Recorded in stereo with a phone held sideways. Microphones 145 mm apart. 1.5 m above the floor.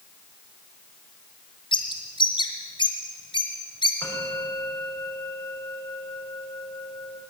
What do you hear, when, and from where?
1.7 s a bird: 30° left (ahead or behind), 2 m
4.0 s a bell: 10° left (ahead or behind), 8 m